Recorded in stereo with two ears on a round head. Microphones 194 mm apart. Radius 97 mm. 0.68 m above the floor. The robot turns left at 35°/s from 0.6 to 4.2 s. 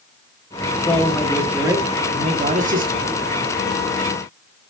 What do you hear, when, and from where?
0.8 s a man speaking: 15° left, 1.3 m; by 3.1 s 65° right, 1.3 m